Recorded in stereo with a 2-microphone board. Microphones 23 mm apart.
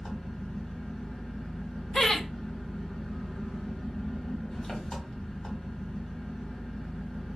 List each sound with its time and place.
0.0 s an engine running: 30° left (ahead or behind), 1.4 m
1.9 s laughter: 15° left (ahead or behind), 0.5 m